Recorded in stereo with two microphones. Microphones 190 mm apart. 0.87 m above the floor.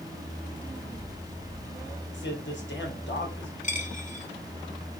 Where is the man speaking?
75° left (ahead or behind), 3.5 m.